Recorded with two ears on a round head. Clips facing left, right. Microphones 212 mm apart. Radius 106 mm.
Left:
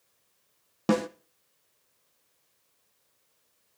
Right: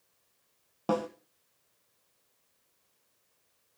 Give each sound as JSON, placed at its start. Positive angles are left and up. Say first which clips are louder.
{"t": 0.9, "sound": "a snare drum", "louder": "left 5 dB", "side_deg": 30, "distance_m": 1.0}